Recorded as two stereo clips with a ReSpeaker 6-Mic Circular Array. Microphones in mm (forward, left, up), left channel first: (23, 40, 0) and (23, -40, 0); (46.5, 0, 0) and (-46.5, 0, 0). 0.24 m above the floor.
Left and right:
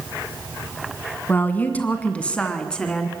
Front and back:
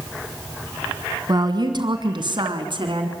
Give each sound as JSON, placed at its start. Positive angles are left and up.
{"t": 1.3, "sound": "a woman speaking", "azimuth_deg": 150, "distance_m": 2.0}